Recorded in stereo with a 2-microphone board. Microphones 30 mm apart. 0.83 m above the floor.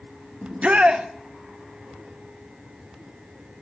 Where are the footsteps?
No footsteps in this recording.